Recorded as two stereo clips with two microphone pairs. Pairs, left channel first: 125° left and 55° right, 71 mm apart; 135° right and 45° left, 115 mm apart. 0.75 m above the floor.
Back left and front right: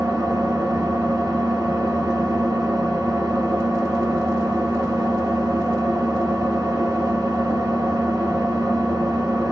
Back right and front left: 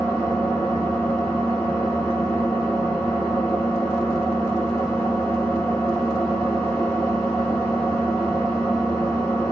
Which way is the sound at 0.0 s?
55° right.